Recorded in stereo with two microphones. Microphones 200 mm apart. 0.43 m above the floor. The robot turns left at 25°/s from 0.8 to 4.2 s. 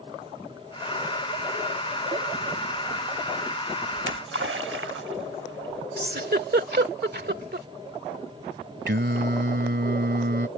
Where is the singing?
65° right (ahead or behind).